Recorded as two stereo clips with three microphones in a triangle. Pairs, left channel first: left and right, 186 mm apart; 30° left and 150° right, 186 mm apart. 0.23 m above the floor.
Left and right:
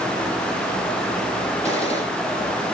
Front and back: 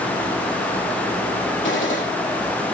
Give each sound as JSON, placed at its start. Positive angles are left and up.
{"t": 1.6, "sound": "a gunshot", "azimuth_deg": 30, "distance_m": 7.0}